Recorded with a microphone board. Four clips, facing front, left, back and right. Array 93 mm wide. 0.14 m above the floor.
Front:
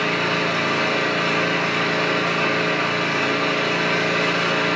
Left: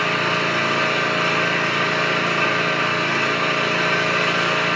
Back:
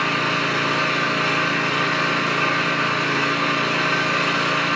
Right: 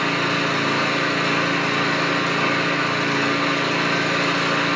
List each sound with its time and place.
0.0 s an engine running: 110° left, 0.8 m